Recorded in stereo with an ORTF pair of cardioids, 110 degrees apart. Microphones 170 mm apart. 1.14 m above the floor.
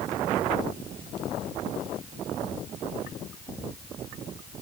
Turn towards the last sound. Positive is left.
No sound to turn to.